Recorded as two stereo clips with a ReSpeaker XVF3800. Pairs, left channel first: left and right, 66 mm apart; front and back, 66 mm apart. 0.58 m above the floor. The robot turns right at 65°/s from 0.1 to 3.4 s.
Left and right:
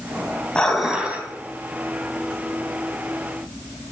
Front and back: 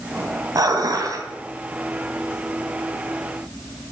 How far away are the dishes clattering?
About 2.5 m.